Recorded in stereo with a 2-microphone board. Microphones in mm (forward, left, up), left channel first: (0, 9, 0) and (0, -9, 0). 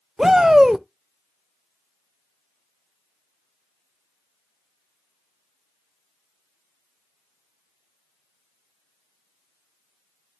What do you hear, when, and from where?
0.2 s a shout: 25° right (ahead or behind), 0.9 m